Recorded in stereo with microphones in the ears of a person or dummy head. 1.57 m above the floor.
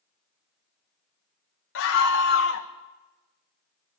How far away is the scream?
About 1.2 m.